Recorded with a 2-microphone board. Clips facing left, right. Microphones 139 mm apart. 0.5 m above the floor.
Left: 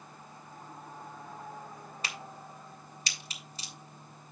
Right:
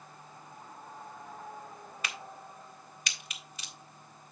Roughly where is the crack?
Left.